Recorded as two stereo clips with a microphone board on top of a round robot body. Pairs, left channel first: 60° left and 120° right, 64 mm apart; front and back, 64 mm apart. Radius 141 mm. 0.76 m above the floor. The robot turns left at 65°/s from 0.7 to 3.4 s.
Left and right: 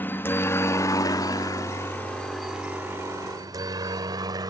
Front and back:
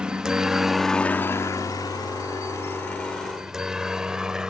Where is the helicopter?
110° left; by 4.5 s 100° right.